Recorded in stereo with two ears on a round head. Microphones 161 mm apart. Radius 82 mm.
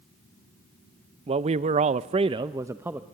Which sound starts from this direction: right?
A man speaking, at 1.3 s.